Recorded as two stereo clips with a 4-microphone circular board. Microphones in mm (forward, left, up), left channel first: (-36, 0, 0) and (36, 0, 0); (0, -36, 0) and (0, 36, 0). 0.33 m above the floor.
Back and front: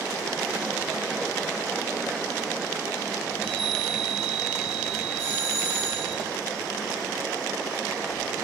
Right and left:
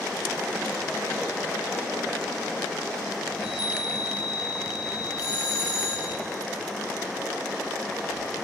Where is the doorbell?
50° right, 8 m.